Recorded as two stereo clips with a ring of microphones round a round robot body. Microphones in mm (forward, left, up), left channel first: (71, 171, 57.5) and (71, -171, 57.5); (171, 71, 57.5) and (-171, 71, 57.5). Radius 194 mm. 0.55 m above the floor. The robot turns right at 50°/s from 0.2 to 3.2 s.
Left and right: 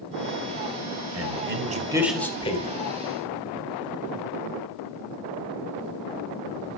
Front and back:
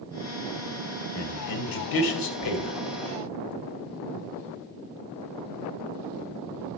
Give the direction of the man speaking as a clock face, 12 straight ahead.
2 o'clock.